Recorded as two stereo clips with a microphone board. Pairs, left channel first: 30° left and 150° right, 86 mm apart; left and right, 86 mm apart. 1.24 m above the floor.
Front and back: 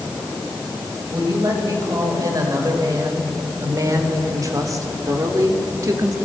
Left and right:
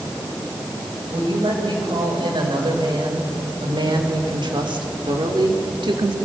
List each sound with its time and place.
1.1 s a woman speaking: 105° right, 6.5 m